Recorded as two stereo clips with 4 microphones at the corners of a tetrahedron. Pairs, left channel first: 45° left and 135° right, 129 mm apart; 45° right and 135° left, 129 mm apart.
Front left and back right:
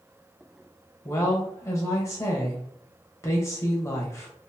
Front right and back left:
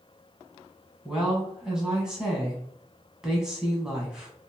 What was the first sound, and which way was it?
A woman speaking, 60° left.